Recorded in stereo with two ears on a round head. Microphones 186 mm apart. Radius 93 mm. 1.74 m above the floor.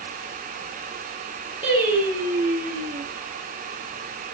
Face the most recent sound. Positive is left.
turn(degrees=-10)  # may be behind; listen again after turning